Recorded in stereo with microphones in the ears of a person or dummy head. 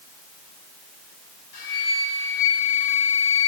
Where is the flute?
50° left (ahead or behind), 6.5 m.